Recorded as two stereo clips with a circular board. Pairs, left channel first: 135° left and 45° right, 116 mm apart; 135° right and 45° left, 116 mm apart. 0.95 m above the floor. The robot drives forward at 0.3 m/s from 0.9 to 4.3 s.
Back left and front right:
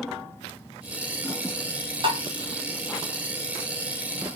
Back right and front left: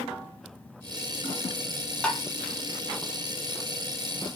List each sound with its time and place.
2.0 s tapping: 55° right, 0.7 m; by 2.2 s 65° right, 0.7 m